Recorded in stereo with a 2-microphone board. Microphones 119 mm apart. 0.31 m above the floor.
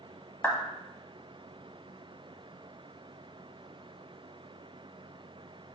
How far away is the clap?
About 1.9 m.